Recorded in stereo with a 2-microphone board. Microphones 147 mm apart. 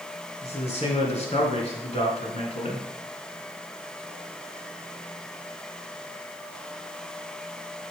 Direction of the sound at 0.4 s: 45° left (ahead or behind).